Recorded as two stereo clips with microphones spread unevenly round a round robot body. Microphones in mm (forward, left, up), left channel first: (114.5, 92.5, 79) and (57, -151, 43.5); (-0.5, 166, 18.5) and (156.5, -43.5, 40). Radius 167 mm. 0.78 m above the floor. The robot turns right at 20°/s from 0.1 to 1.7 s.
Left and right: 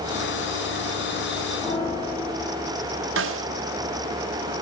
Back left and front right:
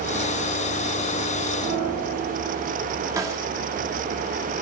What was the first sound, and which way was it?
A piano, 5° left.